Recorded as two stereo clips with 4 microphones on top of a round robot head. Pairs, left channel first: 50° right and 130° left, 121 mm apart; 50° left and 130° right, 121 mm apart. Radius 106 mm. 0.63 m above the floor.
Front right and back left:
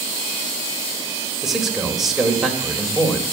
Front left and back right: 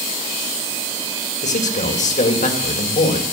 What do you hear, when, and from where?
1.4 s a man speaking: 45° left, 3.5 m